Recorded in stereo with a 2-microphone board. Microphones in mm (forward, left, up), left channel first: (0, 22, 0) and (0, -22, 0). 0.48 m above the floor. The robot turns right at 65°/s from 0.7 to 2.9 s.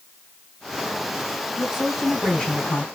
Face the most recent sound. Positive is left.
turn(degrees=55)